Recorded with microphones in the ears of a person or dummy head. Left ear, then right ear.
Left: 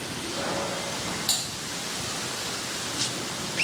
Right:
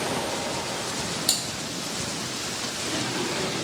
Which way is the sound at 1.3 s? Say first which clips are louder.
Right 1 dB; 15° right (ahead or behind).